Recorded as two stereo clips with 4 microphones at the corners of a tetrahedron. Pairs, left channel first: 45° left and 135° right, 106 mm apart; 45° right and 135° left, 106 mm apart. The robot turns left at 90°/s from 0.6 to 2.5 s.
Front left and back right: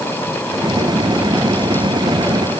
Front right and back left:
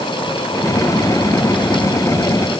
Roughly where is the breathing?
No breathing in this recording.